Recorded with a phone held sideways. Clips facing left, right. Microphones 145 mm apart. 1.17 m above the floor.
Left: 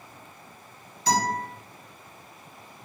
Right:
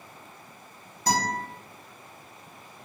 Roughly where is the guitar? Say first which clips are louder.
Left 2 dB; right.